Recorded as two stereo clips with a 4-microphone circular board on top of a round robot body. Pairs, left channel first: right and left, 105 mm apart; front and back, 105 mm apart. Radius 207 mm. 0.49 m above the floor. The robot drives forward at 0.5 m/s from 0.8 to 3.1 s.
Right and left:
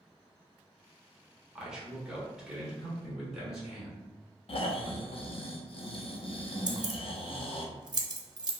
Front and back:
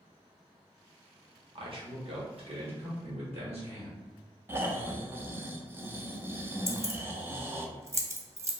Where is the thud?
No thud in this recording.